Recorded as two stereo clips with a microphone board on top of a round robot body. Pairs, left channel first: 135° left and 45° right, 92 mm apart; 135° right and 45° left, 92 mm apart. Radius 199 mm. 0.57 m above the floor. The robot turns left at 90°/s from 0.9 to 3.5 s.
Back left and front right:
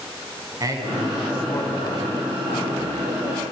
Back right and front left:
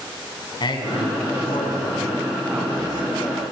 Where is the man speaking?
100° right, 5.5 m; by 3.1 s 60° left, 5.5 m.